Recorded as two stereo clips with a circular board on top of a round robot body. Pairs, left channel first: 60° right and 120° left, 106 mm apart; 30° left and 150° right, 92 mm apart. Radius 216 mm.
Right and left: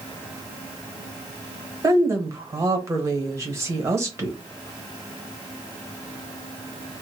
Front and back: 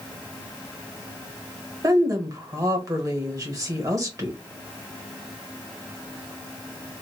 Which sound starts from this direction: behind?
A woman speaking, at 1.8 s.